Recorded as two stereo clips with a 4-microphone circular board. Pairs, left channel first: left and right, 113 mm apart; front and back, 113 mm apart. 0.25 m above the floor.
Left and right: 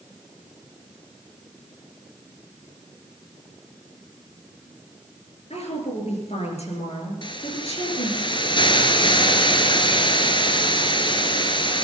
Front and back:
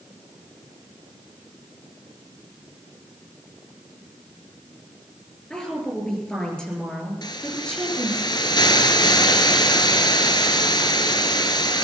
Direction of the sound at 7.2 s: 50° left.